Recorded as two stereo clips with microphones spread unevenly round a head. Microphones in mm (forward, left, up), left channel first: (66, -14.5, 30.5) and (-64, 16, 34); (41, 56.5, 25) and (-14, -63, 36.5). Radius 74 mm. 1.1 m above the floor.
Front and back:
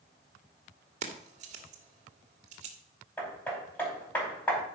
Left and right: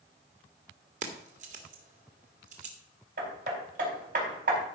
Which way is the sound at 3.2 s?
95° right.